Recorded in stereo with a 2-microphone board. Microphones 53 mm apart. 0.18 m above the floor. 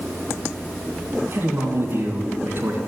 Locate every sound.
1.3 s a man speaking: 45° right (ahead or behind), 2.5 m